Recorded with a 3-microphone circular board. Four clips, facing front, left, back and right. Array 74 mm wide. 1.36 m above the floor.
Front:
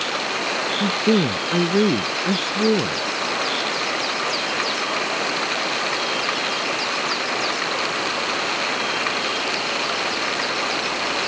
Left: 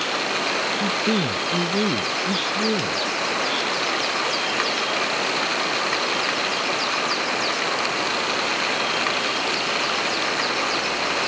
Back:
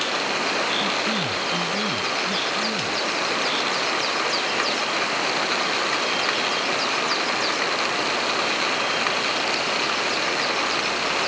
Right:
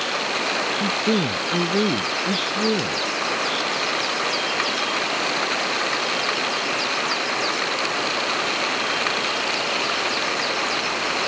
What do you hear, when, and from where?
0.8 s a man speaking: 10° right